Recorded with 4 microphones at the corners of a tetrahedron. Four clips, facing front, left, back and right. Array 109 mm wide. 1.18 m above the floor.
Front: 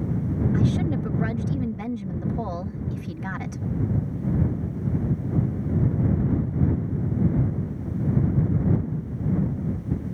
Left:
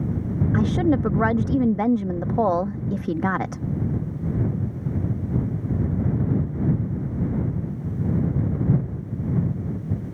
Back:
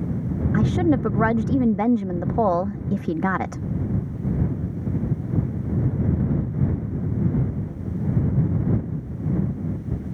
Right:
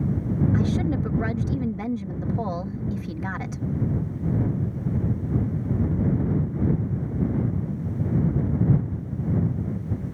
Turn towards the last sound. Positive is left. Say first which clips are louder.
# left 4 dB, back 8 dB
turn(degrees=140)